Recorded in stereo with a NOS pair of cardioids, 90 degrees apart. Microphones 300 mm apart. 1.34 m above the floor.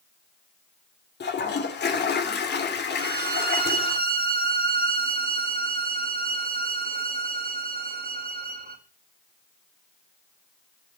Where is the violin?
35° right, 2.5 m.